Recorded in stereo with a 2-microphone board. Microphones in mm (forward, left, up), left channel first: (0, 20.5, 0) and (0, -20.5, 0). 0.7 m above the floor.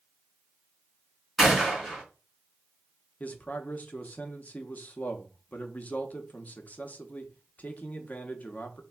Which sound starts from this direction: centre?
A gunshot, at 1.4 s.